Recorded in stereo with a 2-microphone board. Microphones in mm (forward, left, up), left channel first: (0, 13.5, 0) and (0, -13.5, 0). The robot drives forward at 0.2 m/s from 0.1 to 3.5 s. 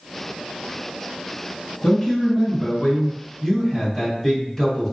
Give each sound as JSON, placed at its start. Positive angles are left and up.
{"t": 1.8, "sound": "a man speaking", "side_deg": 0, "distance_m": 1.8}